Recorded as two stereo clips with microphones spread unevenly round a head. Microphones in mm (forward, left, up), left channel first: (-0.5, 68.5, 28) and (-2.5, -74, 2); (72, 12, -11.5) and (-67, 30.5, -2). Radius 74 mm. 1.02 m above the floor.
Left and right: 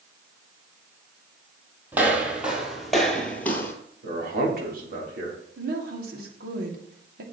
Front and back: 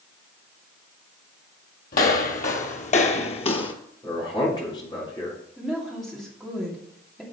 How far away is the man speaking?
About 3.5 m.